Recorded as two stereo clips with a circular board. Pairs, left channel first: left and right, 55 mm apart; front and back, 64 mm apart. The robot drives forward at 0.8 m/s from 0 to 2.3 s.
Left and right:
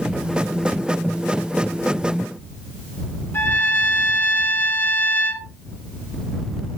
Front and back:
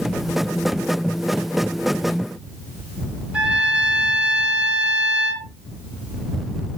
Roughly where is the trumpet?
Behind left.